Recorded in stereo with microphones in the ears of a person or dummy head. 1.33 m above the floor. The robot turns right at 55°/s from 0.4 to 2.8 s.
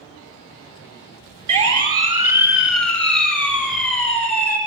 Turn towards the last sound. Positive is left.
turn(degrees=10)  # may be behind; listen again after turning